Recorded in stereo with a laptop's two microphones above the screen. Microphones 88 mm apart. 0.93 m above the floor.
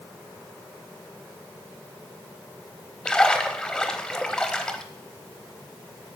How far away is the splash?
About 0.7 m.